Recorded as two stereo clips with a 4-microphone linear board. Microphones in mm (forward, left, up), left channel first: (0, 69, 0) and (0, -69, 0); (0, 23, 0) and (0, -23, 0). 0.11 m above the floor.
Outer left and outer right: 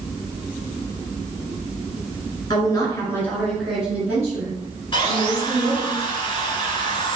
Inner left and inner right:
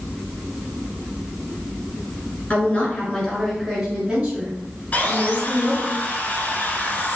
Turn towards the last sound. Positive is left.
turn(degrees=35)  # may be behind; listen again after turning